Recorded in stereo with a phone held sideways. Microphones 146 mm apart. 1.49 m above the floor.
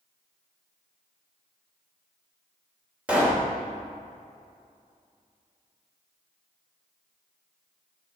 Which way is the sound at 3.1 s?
10° right (ahead or behind).